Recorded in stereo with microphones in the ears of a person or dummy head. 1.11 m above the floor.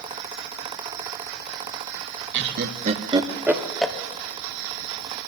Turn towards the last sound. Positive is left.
turn(degrees=10)  # may be behind; listen again after turning